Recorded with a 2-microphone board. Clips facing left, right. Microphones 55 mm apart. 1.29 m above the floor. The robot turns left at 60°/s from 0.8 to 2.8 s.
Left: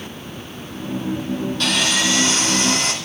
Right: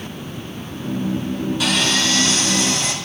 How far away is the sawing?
About 3 m.